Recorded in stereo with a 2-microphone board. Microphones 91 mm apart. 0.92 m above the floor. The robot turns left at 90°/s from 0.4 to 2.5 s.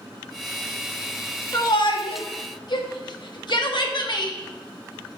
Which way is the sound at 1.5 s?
35° left (ahead or behind).